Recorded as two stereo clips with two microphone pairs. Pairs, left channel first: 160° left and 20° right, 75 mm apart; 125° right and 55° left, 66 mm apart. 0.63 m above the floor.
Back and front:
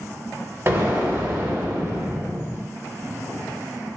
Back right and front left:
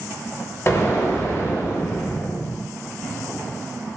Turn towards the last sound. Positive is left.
turn(degrees=-75)